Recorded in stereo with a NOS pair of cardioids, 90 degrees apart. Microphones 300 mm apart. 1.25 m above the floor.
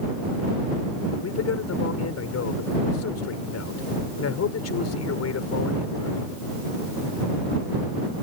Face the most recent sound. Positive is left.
turn(degrees=55)